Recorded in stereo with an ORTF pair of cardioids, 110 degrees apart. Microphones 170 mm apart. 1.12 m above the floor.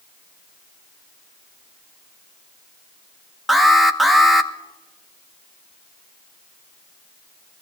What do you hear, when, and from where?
3.5 s an alarm: straight ahead, 1.1 m